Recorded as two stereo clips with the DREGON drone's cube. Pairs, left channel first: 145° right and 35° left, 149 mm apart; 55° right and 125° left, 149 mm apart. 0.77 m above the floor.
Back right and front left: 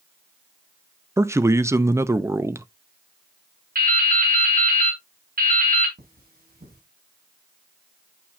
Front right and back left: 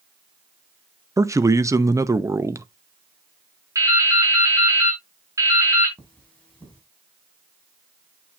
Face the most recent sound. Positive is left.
turn(degrees=25)